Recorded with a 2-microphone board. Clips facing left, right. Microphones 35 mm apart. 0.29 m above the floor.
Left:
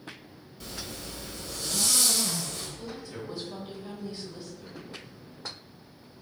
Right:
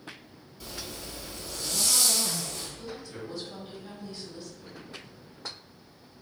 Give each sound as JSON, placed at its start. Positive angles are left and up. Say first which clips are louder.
{"t": 0.6, "sound": "a zipper", "louder": "even", "side_deg": 0, "distance_m": 1.0}
{"t": 2.8, "sound": "a woman speaking", "louder": "left 1 dB", "side_deg": 0, "distance_m": 1.4}